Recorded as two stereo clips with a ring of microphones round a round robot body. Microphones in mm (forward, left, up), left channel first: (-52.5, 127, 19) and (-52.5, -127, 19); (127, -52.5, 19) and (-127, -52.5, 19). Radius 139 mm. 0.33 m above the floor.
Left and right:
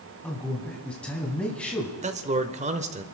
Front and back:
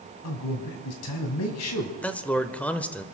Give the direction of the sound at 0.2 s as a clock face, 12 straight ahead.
12 o'clock.